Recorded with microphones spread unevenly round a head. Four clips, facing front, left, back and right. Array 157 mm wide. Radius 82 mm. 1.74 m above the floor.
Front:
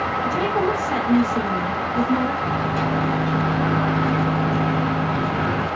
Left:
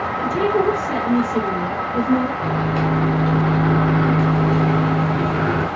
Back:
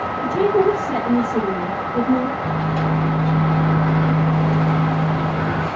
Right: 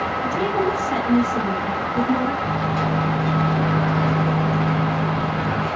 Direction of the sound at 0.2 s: 135° left.